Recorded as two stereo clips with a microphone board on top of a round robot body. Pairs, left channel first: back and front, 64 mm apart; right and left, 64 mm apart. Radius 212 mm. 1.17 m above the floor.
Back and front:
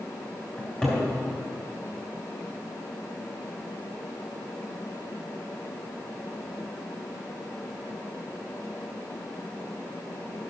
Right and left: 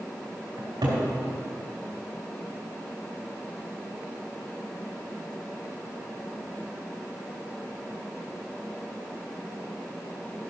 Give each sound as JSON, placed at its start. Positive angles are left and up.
{"t": 0.6, "sound": "a cupboard door", "azimuth_deg": 100, "distance_m": 3.0}